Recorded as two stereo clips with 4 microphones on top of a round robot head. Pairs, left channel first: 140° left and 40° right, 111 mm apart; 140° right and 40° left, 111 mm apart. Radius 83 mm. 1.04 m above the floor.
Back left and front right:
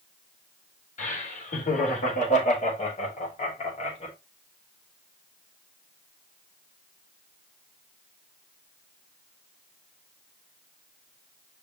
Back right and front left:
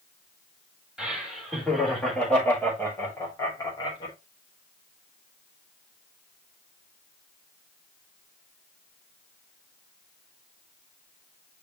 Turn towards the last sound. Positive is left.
turn(degrees=170)